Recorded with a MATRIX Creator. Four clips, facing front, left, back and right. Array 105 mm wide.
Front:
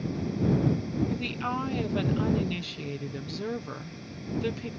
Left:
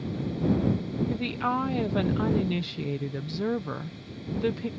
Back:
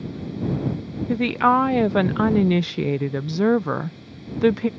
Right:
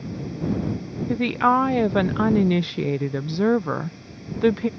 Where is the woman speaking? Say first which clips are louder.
Right 12 dB, back 13 dB; 145° right.